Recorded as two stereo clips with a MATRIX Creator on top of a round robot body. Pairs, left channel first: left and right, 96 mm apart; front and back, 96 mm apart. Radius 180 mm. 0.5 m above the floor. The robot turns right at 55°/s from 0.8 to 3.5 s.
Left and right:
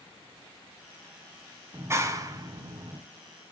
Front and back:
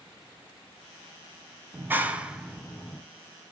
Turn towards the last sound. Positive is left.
turn(degrees=-40)